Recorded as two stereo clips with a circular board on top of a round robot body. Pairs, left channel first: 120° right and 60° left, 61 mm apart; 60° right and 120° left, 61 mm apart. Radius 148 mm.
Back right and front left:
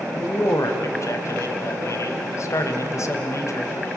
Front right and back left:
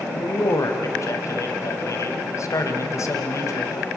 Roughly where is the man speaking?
Right.